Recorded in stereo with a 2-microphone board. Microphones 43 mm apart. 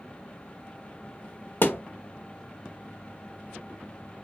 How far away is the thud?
About 0.6 m.